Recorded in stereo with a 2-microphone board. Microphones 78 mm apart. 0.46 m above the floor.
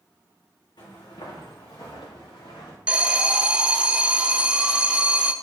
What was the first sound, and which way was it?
Footsteps, 70° left (ahead or behind).